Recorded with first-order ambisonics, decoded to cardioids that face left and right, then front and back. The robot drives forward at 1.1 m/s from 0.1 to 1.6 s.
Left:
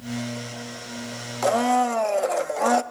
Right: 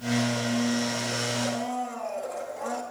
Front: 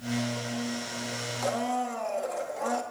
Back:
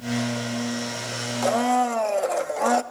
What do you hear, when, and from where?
1.4 s a blender: 110° left, 0.8 m; by 2.8 s 125° left, 0.9 m